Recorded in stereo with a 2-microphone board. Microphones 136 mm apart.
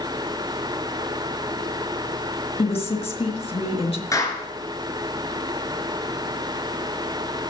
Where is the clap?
25° left (ahead or behind), 2.5 m.